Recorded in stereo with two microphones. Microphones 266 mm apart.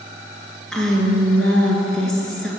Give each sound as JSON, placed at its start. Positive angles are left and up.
{"t": 0.7, "sound": "a woman speaking", "side_deg": 5, "distance_m": 2.0}